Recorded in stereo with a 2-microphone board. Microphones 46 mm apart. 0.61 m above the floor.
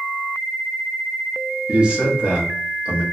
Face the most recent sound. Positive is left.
turn(degrees=-25)  # may be behind; listen again after turning